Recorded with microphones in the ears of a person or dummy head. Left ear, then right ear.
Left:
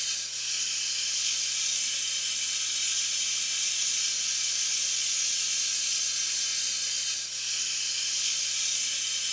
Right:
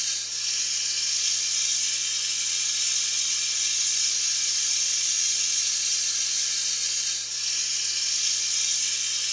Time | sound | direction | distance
0.0 | running water | 65° right (ahead or behind) | 2.5 m